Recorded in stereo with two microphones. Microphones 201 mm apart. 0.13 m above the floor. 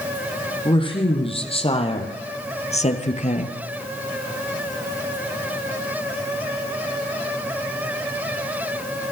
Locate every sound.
0.7 s a woman speaking: 25° left (ahead or behind), 5.5 m; by 3.6 s 40° left (ahead or behind), 2.5 m